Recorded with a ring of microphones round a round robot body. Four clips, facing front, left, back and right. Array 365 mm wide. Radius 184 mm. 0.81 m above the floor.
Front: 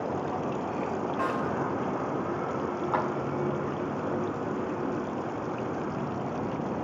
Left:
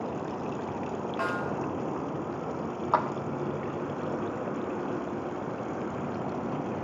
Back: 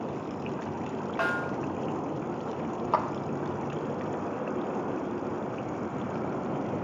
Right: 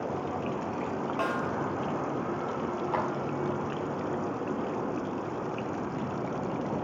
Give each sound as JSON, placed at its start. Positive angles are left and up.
{"t": 1.2, "sound": "a snare drum", "azimuth_deg": -175, "distance_m": 1.1}
{"t": 2.9, "sound": "a clap", "azimuth_deg": 140, "distance_m": 1.0}